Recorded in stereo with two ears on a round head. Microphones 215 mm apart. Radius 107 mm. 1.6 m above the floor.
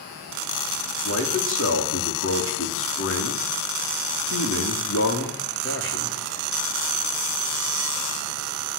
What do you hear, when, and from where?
1.1 s a man speaking: 55° left (ahead or behind), 4.5 m